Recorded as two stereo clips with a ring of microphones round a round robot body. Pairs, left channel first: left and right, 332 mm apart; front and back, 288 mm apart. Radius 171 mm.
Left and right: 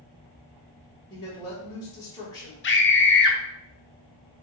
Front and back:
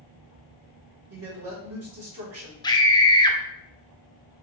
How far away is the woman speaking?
About 2.0 m.